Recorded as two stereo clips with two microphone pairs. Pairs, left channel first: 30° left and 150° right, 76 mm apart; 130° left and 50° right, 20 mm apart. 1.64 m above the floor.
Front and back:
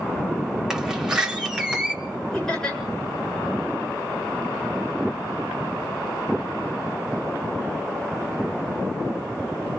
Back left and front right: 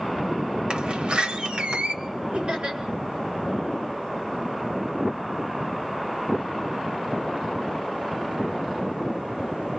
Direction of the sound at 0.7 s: 65° right.